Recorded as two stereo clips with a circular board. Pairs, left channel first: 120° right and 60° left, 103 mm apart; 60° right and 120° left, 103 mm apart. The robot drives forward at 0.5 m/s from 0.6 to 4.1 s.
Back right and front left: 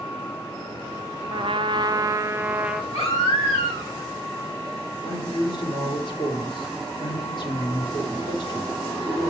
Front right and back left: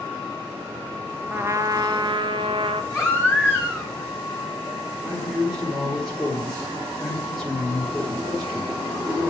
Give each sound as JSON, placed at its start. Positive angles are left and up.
{"t": 1.3, "sound": "a trumpet", "azimuth_deg": 55, "distance_m": 0.6}
{"t": 2.9, "sound": "a baby crying", "azimuth_deg": -125, "distance_m": 5.0}
{"t": 5.0, "sound": "a man speaking", "azimuth_deg": -150, "distance_m": 2.5}